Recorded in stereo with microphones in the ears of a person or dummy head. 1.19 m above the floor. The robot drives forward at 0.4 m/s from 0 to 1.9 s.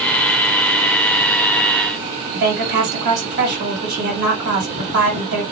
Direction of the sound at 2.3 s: 45° right (ahead or behind).